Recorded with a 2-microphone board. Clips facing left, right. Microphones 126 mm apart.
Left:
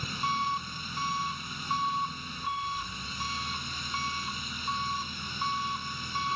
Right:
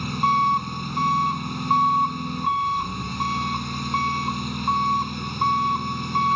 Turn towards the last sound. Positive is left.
turn(degrees=-60)  # may be behind; listen again after turning